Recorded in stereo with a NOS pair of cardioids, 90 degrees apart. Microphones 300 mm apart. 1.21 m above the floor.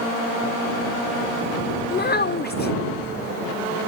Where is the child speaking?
35° left.